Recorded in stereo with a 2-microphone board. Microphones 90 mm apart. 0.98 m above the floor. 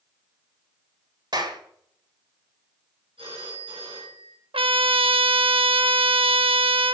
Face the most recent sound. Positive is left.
turn(degrees=-75)  # may be behind; listen again after turning